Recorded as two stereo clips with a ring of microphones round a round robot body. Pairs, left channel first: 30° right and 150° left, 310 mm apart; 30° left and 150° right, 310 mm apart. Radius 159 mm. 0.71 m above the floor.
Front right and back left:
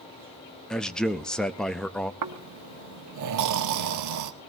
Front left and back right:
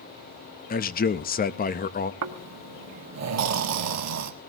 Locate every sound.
0.7 s a man speaking: 55° left, 0.6 m
2.2 s snoring: 175° left, 1.3 m